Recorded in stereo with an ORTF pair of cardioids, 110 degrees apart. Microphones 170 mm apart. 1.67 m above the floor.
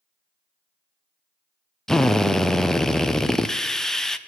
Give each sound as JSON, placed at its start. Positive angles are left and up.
{"t": 1.9, "sound": "a drill", "azimuth_deg": 5, "distance_m": 0.6}